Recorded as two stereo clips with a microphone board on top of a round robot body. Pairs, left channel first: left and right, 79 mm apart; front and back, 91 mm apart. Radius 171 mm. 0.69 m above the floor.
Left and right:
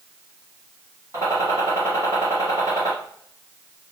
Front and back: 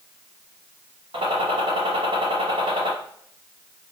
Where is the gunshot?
145° right, 0.8 m.